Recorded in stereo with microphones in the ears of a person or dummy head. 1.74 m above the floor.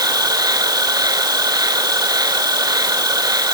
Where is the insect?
15° right (ahead or behind).